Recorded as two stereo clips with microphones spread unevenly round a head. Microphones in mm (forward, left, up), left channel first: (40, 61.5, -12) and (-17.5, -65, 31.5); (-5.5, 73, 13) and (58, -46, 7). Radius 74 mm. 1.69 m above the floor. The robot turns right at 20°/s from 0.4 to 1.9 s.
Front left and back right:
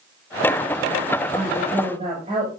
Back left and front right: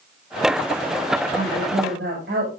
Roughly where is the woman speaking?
Right.